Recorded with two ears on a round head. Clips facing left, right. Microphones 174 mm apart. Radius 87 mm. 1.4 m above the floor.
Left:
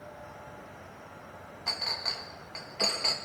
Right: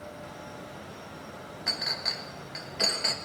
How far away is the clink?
About 1.0 m.